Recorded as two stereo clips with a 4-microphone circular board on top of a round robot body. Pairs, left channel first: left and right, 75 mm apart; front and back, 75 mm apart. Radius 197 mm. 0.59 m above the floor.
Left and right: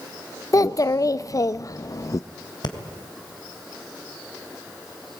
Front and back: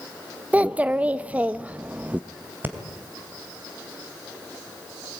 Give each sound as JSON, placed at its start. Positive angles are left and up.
{"t": 0.5, "sound": "a child speaking", "azimuth_deg": 115, "distance_m": 0.6}
{"t": 2.6, "sound": "breathing", "azimuth_deg": 115, "distance_m": 2.5}